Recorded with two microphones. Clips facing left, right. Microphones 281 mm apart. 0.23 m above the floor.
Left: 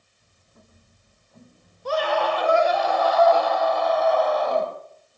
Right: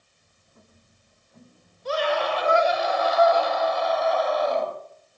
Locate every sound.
1.9 s a scream: 55° left (ahead or behind), 7 m